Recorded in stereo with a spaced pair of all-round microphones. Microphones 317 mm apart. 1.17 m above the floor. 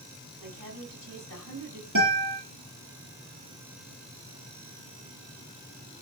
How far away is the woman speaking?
About 8.5 m.